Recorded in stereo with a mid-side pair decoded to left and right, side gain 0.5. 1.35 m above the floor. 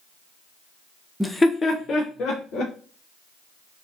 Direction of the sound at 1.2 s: Straight ahead.